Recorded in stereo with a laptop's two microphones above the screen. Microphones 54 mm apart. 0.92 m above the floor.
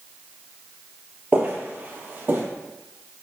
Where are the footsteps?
25° right (ahead or behind), 1.0 m; by 2.5 s 35° right (ahead or behind), 1.5 m.